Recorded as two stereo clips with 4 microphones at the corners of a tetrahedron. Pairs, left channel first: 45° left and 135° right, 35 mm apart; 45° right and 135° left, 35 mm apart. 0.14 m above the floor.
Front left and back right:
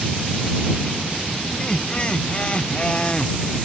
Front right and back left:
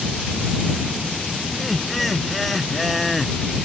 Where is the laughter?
45° left.